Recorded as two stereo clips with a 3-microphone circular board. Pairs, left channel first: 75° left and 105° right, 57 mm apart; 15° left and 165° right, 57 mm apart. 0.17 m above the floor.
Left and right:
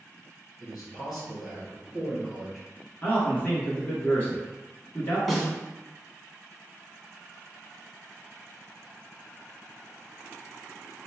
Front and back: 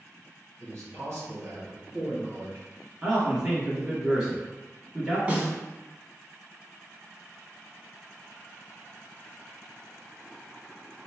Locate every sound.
0.6 s a man speaking: 165° left, 2.0 m
3.0 s a man speaking: 125° left, 1.6 m
5.3 s a snare drum: 160° left, 1.0 m